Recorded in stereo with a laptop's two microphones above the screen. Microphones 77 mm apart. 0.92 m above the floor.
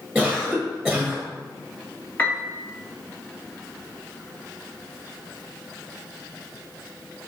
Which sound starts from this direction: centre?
A cough, at 0.1 s.